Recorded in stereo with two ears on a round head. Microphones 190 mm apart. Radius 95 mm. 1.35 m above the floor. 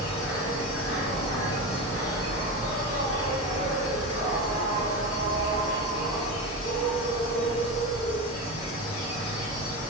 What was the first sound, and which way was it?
An insect, 75° left (ahead or behind).